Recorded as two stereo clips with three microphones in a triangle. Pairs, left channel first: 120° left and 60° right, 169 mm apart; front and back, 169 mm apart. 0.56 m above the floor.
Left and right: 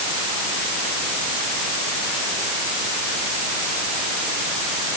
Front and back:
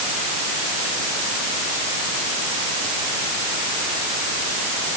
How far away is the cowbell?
No cowbell in this recording.